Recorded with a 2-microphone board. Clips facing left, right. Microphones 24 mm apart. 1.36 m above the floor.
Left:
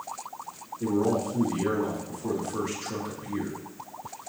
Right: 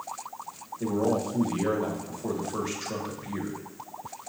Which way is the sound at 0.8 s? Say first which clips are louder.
Left 1 dB; 40° right (ahead or behind).